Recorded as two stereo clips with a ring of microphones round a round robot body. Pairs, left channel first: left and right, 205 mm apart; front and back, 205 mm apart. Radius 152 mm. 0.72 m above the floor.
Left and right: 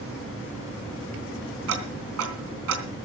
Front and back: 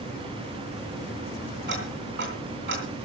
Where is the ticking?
125° right, 3.5 m.